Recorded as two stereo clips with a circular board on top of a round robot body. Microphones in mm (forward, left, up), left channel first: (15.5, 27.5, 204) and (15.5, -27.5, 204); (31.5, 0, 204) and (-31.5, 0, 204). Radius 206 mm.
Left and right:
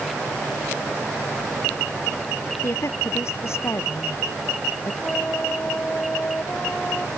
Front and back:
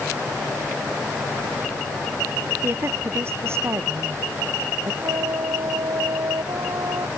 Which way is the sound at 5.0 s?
155° left.